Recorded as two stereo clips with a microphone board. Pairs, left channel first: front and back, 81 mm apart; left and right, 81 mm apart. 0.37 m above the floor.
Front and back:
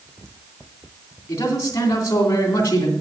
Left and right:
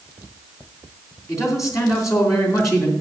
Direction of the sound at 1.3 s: 50° left.